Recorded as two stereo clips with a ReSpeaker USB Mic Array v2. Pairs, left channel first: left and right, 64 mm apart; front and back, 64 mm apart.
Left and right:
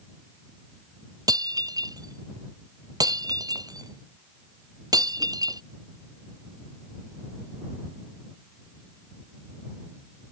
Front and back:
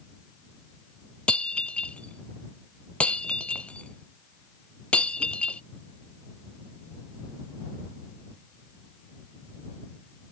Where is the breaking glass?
70° right.